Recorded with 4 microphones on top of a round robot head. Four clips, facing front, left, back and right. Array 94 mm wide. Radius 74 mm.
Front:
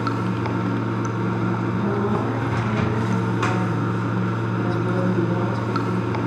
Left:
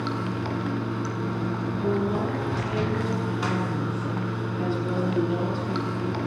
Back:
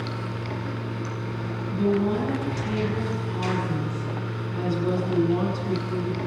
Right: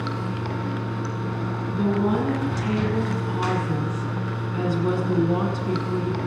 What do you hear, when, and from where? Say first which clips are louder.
0.0 s running water: even, front 8 dB; 5° left, 2 m
1.7 s a woman speaking: right 4 dB, back 4 dB; 90° right, 6.5 m